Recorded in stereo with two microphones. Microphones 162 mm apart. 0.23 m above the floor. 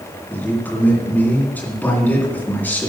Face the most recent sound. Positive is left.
turn(degrees=10)  # may be behind; listen again after turning